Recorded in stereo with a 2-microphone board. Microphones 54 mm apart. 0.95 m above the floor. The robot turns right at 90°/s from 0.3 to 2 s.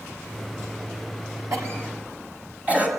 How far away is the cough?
About 7 m.